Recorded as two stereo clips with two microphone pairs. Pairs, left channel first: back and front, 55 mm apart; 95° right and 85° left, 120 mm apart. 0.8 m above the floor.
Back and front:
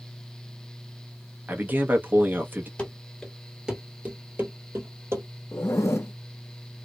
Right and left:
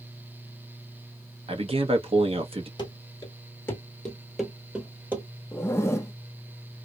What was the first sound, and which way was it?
A man speaking, 50° left.